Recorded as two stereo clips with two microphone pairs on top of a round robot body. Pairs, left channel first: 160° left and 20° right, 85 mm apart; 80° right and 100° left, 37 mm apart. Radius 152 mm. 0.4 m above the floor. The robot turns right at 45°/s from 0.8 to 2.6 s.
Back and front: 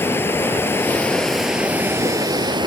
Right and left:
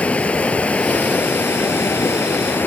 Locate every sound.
0.0 s running water: 135° right; by 2.7 s 55° right